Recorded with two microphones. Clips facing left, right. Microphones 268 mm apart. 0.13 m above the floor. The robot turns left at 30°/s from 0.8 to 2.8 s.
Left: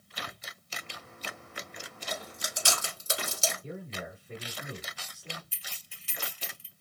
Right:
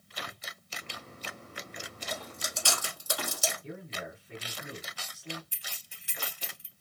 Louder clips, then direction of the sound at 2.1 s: Left 1 dB; 5° left (ahead or behind).